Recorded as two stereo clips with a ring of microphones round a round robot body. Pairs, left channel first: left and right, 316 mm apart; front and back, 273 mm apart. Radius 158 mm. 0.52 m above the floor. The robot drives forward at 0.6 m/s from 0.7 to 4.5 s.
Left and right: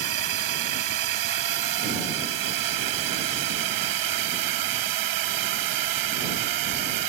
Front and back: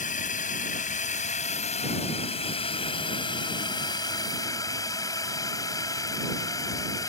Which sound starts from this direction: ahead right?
A drone, at 0.0 s.